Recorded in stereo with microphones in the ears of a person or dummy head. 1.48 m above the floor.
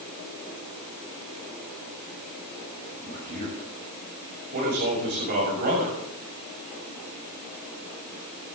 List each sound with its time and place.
2.9 s a man speaking: 55° right (ahead or behind), 6.5 m